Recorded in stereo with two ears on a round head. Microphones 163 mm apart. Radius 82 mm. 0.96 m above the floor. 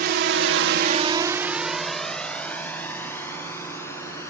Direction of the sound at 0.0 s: 55° right (ahead or behind).